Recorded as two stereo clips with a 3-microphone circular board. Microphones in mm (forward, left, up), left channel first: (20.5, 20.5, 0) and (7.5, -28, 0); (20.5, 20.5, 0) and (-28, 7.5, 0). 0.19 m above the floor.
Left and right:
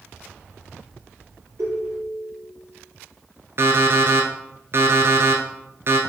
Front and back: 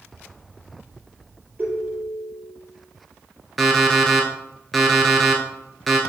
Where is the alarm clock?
75° right, 1.4 m.